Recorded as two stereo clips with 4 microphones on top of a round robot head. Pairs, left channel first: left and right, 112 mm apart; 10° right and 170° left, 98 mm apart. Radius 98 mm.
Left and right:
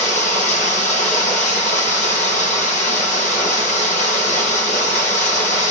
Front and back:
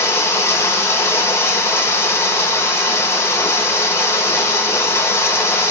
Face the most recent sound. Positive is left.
turn(degrees=55)